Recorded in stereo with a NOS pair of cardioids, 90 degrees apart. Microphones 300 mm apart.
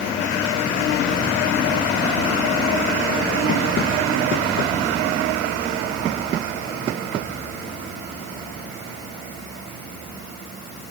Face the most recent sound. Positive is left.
No sound to turn to.